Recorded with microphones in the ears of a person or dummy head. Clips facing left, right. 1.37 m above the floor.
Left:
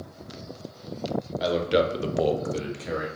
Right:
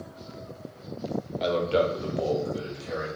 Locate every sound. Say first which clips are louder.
1.4 s a man speaking: left 1 dB; 5° left (ahead or behind), 0.8 m; by 3.1 s 70° left (ahead or behind), 1.1 m